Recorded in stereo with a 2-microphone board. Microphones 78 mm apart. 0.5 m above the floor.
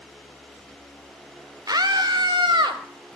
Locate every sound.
1.7 s a scream: 55° right (ahead or behind), 1.1 m; by 2.8 s 70° right (ahead or behind), 2 m